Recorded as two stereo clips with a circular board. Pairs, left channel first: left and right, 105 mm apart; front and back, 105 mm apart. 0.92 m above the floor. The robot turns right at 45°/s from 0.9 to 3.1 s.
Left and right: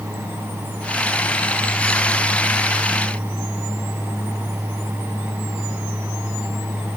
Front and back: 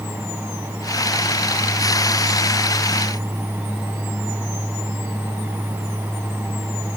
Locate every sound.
Only background noise.